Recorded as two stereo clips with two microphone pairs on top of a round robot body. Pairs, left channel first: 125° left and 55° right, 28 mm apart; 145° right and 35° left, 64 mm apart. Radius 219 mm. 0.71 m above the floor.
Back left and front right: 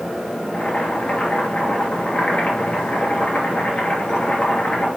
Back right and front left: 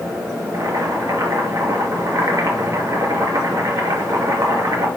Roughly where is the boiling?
Left.